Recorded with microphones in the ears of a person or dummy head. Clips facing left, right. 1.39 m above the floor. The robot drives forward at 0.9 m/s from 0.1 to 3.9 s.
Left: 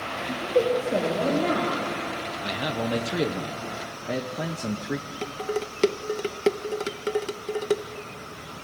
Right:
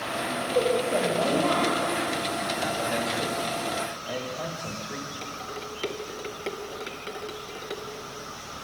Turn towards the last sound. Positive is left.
turn(degrees=60)  # may be behind; listen again after turning